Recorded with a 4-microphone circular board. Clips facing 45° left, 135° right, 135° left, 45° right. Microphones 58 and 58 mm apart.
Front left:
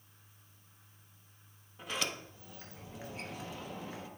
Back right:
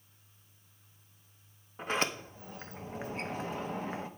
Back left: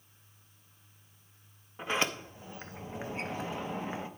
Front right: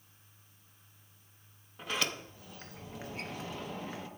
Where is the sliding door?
170° right, 0.8 m.